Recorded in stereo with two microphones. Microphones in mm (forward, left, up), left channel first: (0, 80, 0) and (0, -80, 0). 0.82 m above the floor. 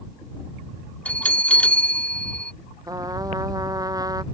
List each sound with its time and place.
1.1 s a bell: 10° left (ahead or behind)
2.9 s a trumpet: 25° right (ahead or behind)